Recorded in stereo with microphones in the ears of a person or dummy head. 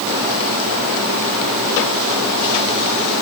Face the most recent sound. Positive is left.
No sound to turn to.